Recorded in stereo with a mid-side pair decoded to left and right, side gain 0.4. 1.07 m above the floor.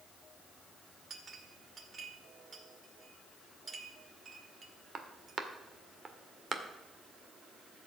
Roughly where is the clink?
Ahead right.